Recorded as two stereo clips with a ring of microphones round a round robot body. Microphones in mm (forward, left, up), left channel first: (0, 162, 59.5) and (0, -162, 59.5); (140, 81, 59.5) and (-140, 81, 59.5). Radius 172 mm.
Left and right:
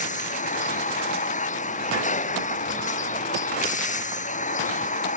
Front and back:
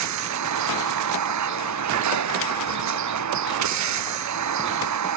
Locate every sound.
0.0 s a vehicle: 160° left